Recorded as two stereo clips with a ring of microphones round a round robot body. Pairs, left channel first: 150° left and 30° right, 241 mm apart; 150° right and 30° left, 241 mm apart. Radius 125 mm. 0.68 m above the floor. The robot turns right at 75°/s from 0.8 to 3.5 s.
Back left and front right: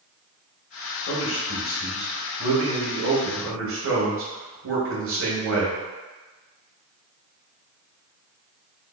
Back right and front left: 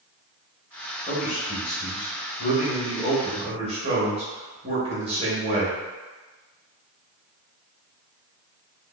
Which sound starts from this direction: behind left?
A man speaking, at 1.1 s.